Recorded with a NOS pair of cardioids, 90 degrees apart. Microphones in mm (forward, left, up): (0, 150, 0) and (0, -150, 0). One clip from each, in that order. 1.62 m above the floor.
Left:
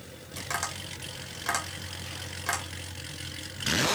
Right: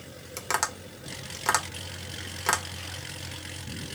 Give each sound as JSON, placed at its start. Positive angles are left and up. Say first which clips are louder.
{"t": 0.4, "sound": "tapping", "louder": "right 4 dB", "azimuth_deg": -40, "distance_m": 1.3}